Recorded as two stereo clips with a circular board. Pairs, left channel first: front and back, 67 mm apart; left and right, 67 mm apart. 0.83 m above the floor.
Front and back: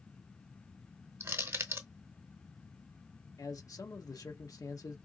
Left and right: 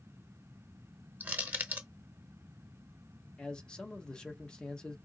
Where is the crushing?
145° right, 0.7 m.